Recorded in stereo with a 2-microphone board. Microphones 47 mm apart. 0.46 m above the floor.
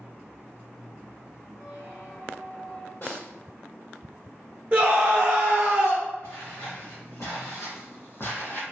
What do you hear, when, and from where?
1.5 s a squeak: 65° left (ahead or behind), 1.8 m
3.0 s a snare drum: 50° left (ahead or behind), 1.5 m
4.7 s a scream: 25° right (ahead or behind), 0.7 m
6.2 s footsteps: 75° left (ahead or behind), 1.8 m; by 8.6 s 45° left (ahead or behind), 0.6 m